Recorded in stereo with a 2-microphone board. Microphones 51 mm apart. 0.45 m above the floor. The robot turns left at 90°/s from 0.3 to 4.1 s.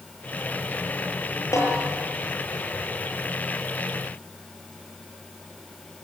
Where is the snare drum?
85° left, 9 m; by 1.7 s 65° left (ahead or behind), 9 m.